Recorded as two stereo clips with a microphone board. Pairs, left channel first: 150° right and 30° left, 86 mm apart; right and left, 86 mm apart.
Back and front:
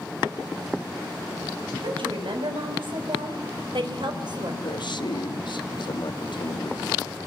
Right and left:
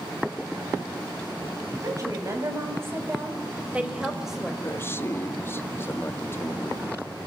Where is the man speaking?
150° right, 1.3 m.